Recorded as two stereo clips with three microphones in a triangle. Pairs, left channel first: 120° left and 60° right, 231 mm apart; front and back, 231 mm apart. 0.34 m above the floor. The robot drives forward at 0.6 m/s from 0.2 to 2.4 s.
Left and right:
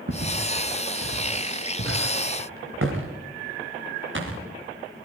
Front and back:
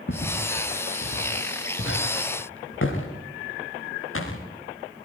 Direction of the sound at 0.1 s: 35° right.